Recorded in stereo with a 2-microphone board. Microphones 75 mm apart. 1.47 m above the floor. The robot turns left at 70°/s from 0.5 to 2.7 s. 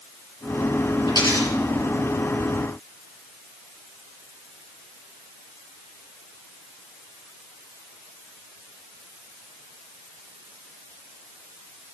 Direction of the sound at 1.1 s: 80° left.